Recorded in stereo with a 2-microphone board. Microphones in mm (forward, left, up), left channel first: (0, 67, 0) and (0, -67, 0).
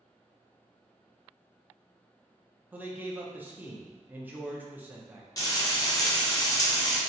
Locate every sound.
2.7 s a man speaking: 15° right (ahead or behind), 0.5 m
5.4 s frying: 25° left (ahead or behind), 0.7 m